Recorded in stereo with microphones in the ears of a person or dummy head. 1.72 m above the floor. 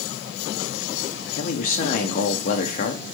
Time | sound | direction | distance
1.4 | a man speaking | 45° left (ahead or behind) | 1.3 m